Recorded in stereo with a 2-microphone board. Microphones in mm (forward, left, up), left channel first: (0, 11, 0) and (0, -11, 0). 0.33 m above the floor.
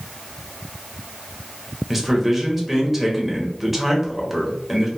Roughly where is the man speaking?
Centre.